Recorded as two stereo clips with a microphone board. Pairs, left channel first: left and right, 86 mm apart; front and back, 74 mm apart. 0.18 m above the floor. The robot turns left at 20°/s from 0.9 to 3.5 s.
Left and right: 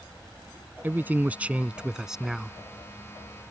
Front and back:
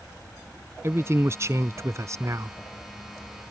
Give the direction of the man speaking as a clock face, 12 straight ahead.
5 o'clock.